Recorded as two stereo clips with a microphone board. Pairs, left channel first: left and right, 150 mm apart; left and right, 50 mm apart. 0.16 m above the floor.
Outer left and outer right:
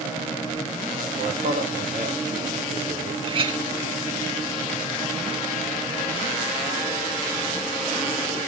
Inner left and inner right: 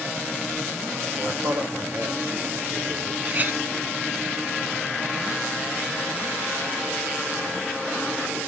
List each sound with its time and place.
1.1 s a man speaking: 55° right (ahead or behind), 3 m; by 3.1 s 50° right (ahead or behind), 1.7 m
3.2 s a clink: 35° right (ahead or behind), 2 m